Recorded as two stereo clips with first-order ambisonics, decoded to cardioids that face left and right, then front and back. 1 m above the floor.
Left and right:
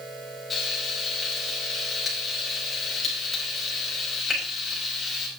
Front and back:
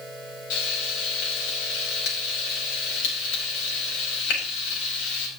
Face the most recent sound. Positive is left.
turn(degrees=15)